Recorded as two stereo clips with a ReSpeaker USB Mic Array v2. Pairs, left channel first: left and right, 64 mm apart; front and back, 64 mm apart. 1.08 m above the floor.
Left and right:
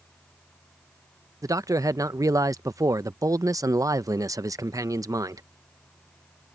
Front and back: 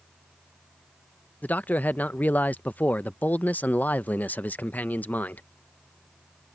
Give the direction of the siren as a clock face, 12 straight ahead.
I don't hear a siren.